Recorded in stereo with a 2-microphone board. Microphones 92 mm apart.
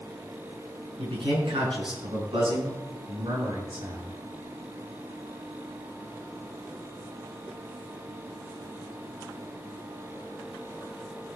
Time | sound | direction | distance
1.0 | a man speaking | 65° right (ahead or behind) | 5.5 m